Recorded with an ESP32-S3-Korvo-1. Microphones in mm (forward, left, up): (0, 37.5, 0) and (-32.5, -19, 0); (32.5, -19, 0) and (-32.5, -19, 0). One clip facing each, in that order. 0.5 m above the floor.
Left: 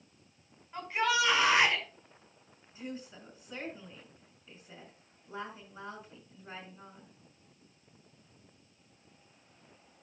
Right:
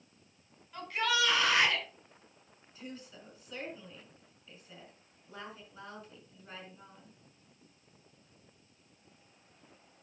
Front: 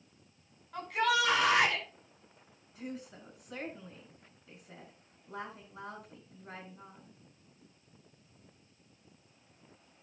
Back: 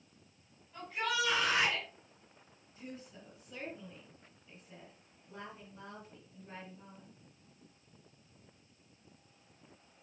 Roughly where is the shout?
Ahead.